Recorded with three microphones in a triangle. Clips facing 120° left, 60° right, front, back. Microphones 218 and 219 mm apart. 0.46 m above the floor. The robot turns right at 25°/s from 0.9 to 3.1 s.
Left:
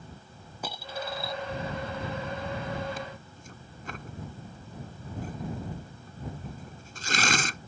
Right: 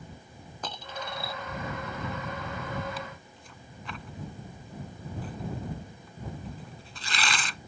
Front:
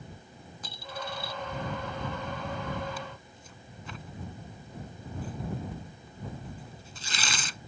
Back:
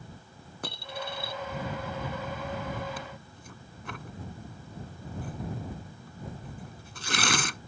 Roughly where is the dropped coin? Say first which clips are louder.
Left 3 dB, back 2 dB; behind.